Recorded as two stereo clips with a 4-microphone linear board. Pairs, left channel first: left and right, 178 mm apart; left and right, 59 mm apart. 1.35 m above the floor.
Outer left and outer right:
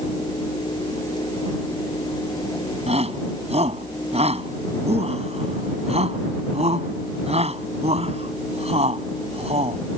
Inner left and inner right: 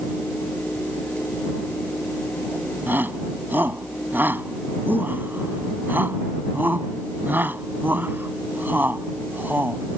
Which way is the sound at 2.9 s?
35° right (ahead or behind).